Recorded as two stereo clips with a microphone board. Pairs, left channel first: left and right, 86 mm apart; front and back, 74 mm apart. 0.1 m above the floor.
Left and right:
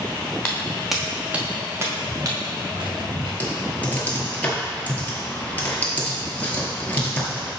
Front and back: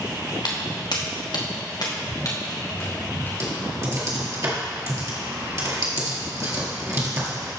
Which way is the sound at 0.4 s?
15° left.